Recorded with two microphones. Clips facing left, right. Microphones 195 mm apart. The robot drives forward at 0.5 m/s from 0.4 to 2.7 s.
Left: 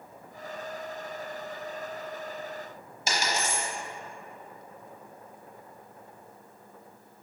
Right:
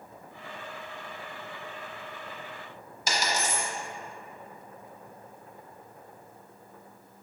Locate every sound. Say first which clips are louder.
3.1 s a dropped coin: even; 25° left (ahead or behind), 1.0 m